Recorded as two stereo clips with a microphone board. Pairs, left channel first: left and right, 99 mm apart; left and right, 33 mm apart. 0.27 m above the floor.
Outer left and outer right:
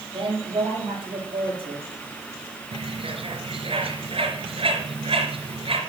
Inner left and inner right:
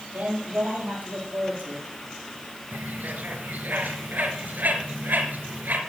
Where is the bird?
65° right (ahead or behind), 3 m.